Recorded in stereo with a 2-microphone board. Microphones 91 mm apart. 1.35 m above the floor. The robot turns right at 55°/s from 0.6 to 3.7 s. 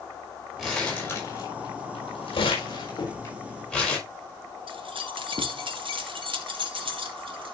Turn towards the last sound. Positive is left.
turn(degrees=-70)  # may be behind; listen again after turning